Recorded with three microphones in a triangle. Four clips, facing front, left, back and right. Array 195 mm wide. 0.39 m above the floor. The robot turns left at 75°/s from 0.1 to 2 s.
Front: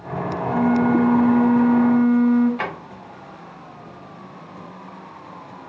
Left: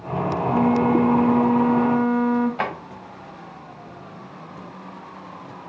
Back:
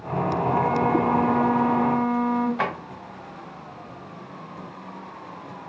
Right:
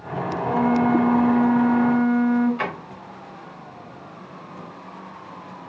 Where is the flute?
95° right, 1.8 m; by 2.5 s 145° left, 1.8 m.